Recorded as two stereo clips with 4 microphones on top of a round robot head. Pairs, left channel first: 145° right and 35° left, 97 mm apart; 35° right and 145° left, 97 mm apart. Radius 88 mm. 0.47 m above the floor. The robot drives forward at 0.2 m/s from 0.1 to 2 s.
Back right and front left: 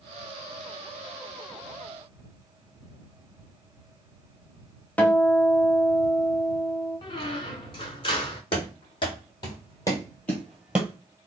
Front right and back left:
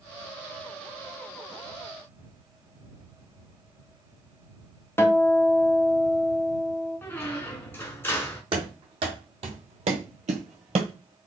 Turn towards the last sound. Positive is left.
turn(degrees=95)